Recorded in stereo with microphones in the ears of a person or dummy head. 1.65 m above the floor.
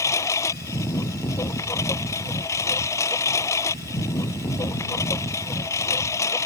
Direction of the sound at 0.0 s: 15° left (ahead or behind).